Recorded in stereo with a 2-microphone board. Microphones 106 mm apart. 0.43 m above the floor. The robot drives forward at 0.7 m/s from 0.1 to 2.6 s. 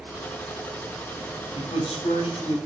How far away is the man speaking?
About 3 m.